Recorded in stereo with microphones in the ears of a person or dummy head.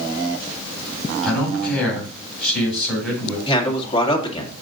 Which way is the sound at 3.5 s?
30° left (ahead or behind).